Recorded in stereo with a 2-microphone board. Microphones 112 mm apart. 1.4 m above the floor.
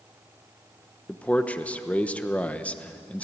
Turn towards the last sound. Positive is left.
turn(degrees=10)  # may be behind; listen again after turning